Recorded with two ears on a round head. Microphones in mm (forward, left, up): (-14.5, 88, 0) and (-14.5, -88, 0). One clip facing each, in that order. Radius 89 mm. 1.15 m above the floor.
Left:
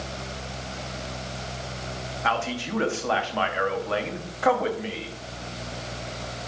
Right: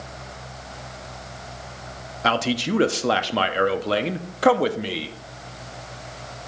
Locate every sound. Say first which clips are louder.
2.2 s a man speaking: right 6 dB; 45° right (ahead or behind), 0.6 m